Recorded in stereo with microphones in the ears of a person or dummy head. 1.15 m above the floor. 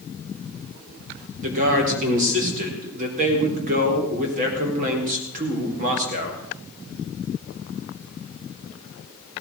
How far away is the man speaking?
About 4.5 m.